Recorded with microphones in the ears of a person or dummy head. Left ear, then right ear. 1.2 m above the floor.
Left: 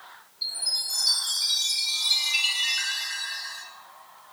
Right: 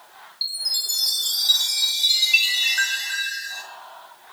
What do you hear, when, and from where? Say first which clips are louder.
0.4 s a chime: right 4 dB; 70° right (ahead or behind), 3 m